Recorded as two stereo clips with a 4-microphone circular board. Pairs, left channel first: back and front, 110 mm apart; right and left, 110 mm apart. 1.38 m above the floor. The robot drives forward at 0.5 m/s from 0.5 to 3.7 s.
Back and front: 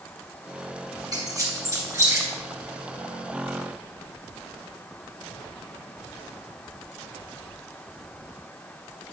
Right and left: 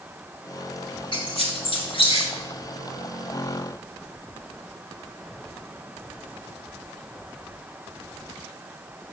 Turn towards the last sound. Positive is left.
turn(degrees=-80)